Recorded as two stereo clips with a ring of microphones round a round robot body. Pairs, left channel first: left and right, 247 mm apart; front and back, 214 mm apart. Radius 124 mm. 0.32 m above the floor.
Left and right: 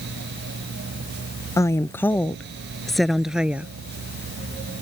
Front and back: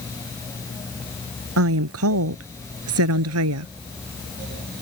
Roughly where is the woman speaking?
Behind.